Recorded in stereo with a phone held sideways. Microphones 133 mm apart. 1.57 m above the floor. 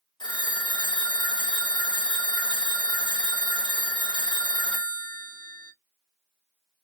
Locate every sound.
0.2 s a phone ringing: 35° left (ahead or behind), 0.5 m